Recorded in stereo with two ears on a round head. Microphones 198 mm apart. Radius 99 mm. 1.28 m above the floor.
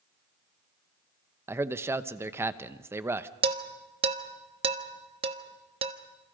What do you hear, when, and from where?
1.5 s a man speaking: 10° right (ahead or behind), 0.9 m
3.4 s dishes clattering: 25° right (ahead or behind), 1.3 m